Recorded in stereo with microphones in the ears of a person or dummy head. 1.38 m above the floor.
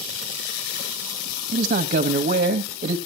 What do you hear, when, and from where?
1.5 s a man speaking: 40° right (ahead or behind), 1.3 m